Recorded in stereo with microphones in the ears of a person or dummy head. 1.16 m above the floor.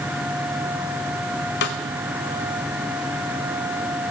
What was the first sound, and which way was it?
A snare drum, 55° left (ahead or behind).